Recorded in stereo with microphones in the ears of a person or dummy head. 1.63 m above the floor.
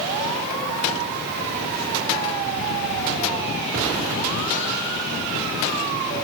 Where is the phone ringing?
I don't hear a phone ringing.